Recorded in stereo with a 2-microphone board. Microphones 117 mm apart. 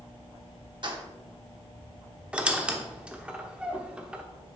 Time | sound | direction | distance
0.8 | keys jangling | 45° right (ahead or behind) | 0.8 m
2.3 | a squeak | 10° right (ahead or behind) | 0.7 m